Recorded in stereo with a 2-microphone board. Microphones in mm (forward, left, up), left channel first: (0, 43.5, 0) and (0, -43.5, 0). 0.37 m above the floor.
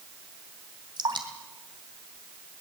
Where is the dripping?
65° right (ahead or behind), 3 m.